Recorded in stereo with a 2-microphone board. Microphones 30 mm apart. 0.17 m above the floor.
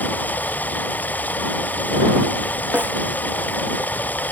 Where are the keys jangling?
I don't hear keys jangling.